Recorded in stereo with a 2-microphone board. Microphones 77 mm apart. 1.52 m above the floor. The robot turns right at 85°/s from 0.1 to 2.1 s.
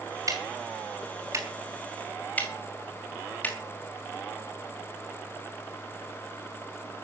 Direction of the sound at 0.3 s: 45° right (ahead or behind).